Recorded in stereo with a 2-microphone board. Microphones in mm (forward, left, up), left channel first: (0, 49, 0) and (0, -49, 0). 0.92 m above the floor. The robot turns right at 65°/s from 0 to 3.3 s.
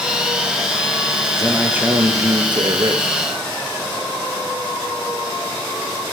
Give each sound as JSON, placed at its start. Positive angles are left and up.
{"t": 1.3, "sound": "a man speaking", "azimuth_deg": 175, "distance_m": 0.8}